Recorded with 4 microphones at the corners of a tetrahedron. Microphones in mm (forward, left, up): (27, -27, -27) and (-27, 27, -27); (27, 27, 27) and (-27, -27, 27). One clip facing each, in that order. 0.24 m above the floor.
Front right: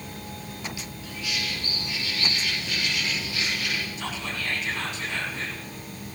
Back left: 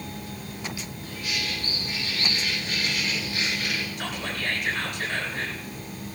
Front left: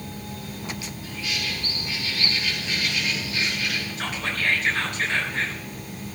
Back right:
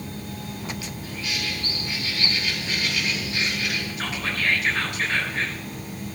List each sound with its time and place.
1.0 s a bird: straight behind, 8.5 m
4.0 s whispering: 140° left, 3.5 m